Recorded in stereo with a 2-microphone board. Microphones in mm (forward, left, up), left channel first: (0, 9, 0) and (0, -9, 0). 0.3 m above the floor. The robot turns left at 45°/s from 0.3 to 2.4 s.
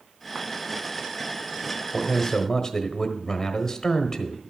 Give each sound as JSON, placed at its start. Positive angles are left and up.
{"t": 1.9, "sound": "a man speaking", "side_deg": 30, "distance_m": 1.1}